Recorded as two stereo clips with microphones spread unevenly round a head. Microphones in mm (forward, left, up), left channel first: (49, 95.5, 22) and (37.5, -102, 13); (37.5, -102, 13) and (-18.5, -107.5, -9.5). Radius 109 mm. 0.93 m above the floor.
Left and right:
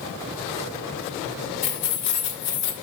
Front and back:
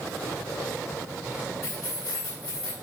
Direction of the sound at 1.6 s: 85° left.